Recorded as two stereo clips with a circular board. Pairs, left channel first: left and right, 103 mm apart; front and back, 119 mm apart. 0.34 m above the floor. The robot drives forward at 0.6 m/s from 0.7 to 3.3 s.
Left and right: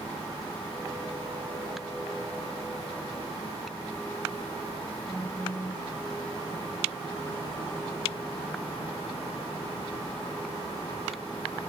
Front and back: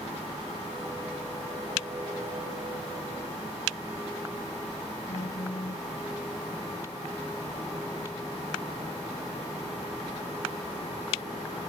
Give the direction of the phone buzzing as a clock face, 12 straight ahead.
11 o'clock.